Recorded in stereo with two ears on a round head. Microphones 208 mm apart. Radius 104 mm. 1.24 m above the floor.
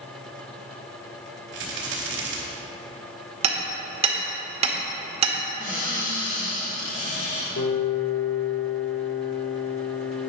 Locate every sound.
1.5 s a rattle: 50° right (ahead or behind), 2.5 m
3.4 s hammering: 30° right (ahead or behind), 1.7 m
5.6 s a cupboard door: 35° left (ahead or behind), 2.5 m
7.6 s a piano: 65° left (ahead or behind), 1.4 m